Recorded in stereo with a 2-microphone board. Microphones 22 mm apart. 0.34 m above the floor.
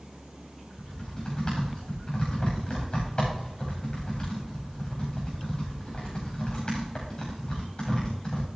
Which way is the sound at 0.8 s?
40° left (ahead or behind).